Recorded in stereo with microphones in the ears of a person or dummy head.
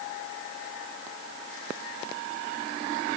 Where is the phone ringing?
No phone ringing in this recording.